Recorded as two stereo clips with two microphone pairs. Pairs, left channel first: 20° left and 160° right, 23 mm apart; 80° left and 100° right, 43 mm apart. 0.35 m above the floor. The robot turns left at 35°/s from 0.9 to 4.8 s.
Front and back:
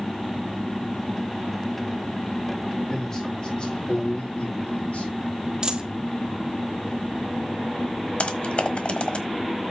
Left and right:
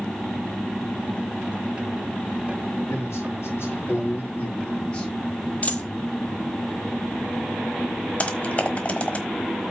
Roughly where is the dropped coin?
Behind left.